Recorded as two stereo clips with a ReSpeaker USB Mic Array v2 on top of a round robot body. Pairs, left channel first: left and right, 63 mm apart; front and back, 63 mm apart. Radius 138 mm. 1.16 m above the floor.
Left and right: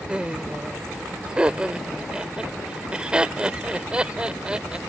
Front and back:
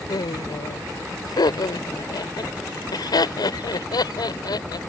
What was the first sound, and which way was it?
Laughter, 15° right.